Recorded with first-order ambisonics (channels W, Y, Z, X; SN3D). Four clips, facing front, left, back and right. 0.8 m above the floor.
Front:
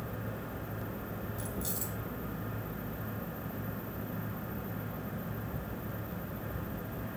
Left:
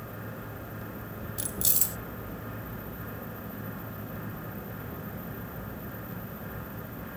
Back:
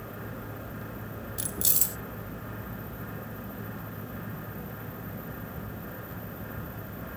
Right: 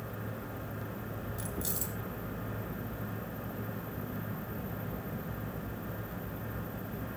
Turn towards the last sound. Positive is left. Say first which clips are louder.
# left 7 dB, back 9 dB
turn(degrees=140)